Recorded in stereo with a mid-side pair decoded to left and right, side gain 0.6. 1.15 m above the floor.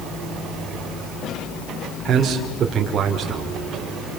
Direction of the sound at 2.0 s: 45° right.